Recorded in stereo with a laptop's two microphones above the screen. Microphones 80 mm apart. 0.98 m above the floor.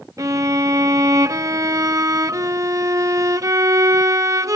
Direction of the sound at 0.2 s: 40° right (ahead or behind).